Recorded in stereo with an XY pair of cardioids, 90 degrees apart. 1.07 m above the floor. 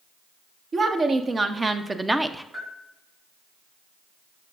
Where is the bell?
35° right, 3 m.